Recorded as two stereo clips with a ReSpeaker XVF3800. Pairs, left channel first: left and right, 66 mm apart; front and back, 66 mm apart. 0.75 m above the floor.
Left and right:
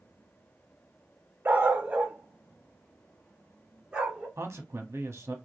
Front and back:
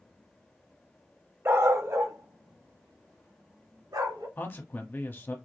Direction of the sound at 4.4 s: 55° right.